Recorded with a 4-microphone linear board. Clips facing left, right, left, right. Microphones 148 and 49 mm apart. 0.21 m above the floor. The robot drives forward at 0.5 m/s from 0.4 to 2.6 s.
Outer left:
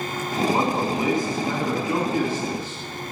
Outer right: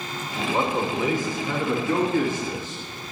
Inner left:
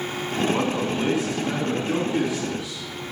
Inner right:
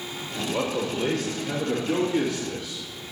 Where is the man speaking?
20° left (ahead or behind), 2.0 m; by 3.1 s 15° left (ahead or behind), 3 m.